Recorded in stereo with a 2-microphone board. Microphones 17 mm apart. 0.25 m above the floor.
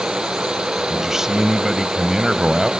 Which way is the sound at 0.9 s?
25° right (ahead or behind).